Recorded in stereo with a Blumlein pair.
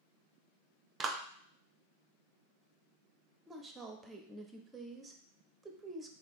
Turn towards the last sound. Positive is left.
turn(degrees=-15)